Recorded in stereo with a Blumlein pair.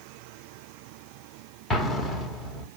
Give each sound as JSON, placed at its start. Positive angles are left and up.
{"t": 1.7, "sound": "an explosion", "azimuth_deg": 15, "distance_m": 1.2}